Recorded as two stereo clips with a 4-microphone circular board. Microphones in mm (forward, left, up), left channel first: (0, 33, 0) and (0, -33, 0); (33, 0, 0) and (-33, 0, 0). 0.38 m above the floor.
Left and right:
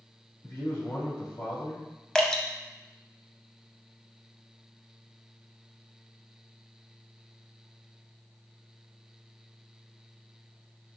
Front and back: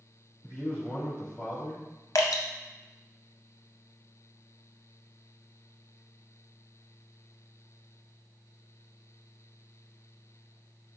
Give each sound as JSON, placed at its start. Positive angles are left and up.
{"t": 0.4, "sound": "a man speaking", "azimuth_deg": 75, "distance_m": 2.0}
{"t": 2.1, "sound": "dripping", "azimuth_deg": 15, "distance_m": 0.6}